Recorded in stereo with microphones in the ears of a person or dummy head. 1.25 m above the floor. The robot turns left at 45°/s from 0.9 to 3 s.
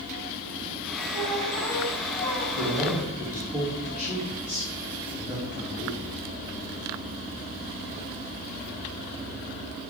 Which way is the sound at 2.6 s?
35° right (ahead or behind).